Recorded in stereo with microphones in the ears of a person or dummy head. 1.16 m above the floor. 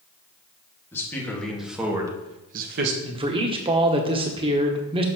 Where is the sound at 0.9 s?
15° left (ahead or behind), 2 m; by 2.9 s 65° right (ahead or behind), 1.1 m.